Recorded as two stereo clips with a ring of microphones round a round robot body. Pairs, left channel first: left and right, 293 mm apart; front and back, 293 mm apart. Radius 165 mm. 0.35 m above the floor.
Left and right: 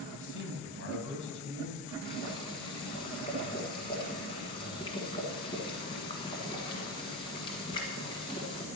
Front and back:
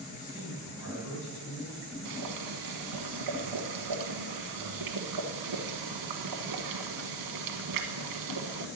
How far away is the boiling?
About 1.4 m.